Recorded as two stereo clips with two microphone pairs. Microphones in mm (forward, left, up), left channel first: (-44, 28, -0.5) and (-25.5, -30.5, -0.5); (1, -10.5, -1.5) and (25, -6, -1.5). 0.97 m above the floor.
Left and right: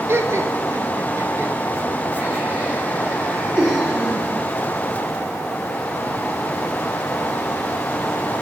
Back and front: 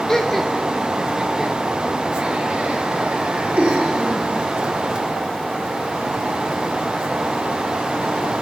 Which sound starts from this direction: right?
Laughter, at 0.1 s.